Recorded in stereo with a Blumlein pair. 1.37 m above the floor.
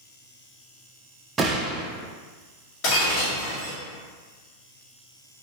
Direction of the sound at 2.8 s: 40° left.